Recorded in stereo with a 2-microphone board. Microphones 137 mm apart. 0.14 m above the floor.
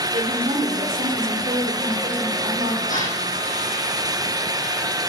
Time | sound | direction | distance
0.1 | a woman speaking | 60° right (ahead or behind) | 3 m
2.9 | a gasp | 75° left (ahead or behind) | 7 m